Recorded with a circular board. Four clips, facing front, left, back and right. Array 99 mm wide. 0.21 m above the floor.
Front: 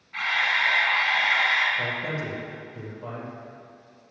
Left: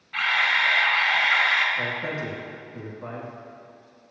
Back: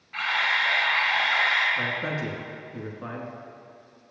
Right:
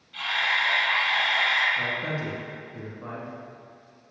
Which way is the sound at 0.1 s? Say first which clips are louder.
Left 3 dB, even; 105° left.